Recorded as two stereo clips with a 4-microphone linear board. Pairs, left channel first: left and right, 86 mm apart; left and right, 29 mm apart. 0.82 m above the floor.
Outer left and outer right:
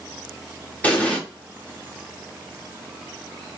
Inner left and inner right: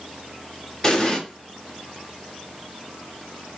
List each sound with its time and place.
0.8 s an explosion: 20° left (ahead or behind), 0.6 m